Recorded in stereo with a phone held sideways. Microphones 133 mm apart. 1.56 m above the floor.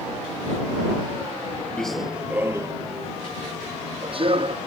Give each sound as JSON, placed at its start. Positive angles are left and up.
{"t": 1.8, "sound": "running footsteps", "side_deg": 5}